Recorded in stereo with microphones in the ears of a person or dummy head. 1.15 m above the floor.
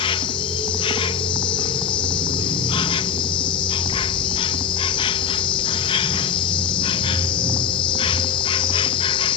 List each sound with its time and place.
0.0 s an insect: 30° left (ahead or behind)